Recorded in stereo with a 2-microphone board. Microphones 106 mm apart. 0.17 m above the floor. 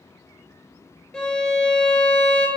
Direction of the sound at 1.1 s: 5° left (ahead or behind).